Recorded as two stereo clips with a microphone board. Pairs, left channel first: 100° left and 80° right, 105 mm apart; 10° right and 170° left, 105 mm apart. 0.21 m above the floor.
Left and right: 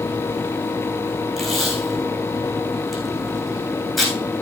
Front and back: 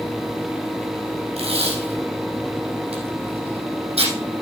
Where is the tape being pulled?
170° right, 4.5 m.